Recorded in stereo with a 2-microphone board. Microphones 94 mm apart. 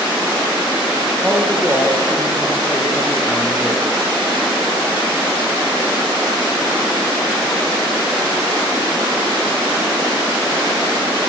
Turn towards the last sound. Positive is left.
turn(degrees=-5)  # may be behind; listen again after turning